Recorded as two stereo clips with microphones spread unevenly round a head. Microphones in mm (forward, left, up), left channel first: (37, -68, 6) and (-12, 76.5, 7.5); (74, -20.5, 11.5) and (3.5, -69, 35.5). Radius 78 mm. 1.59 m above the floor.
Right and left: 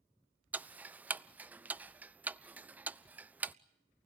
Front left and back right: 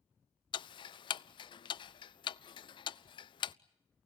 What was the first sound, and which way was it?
Ticking, 30° left.